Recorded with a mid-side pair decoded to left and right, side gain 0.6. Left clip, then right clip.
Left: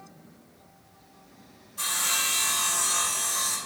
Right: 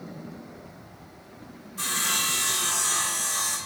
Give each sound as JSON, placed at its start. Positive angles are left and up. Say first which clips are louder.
{"t": 1.8, "sound": "sawing", "louder": "right 1 dB", "azimuth_deg": -5, "distance_m": 3.0}